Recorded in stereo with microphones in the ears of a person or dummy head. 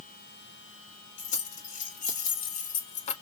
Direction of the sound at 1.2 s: 45° left (ahead or behind).